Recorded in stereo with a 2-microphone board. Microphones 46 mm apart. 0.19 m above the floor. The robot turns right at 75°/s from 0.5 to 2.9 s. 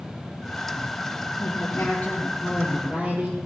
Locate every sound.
1.4 s a woman speaking: 100° left, 3 m; by 3.4 s 145° right, 3 m